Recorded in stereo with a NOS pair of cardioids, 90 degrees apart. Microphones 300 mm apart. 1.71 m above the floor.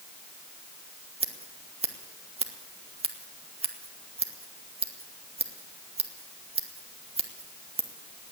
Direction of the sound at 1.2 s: 20° right.